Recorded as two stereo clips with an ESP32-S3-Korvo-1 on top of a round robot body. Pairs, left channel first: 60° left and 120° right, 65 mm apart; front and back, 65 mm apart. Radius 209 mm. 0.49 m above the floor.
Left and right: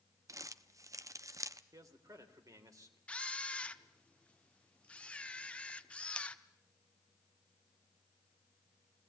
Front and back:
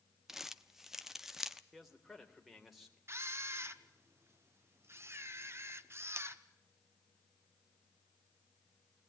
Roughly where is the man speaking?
Right.